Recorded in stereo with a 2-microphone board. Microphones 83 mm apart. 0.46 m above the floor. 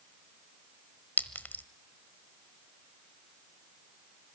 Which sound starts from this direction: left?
A clink, at 1.2 s.